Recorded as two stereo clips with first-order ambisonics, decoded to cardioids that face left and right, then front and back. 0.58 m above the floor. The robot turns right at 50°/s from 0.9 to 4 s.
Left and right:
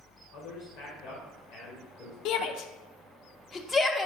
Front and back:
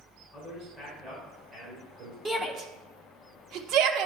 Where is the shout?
95° left, 0.8 m; by 4.1 s 175° right, 0.8 m.